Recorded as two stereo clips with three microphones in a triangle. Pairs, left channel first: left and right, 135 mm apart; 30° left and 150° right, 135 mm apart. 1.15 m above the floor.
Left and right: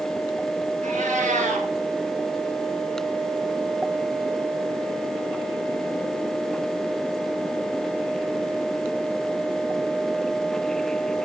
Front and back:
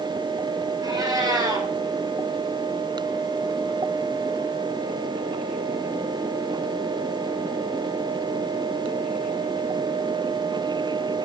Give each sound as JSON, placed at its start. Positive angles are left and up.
{"t": 0.8, "sound": "a cat meowing", "azimuth_deg": -90, "distance_m": 2.5}